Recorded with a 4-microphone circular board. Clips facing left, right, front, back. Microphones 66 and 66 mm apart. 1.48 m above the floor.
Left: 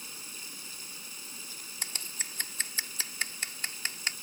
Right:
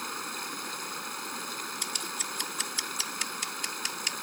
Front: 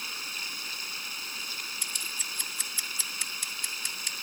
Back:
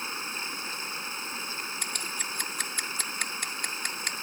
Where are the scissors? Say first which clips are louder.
Right 6 dB, back 4 dB; 145° left.